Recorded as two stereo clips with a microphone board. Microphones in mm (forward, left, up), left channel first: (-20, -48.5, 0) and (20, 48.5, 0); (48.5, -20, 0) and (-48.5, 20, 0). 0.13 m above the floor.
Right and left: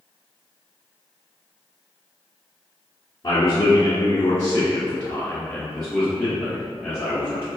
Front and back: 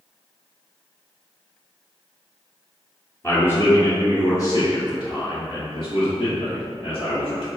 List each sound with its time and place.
3.2 s a man speaking: 85° right, 1.9 m; by 7.5 s 10° right, 4 m